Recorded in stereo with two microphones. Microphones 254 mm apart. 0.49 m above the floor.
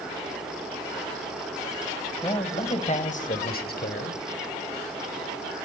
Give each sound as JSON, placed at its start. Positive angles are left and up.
{"t": 2.2, "sound": "a man speaking", "side_deg": 20, "distance_m": 3.0}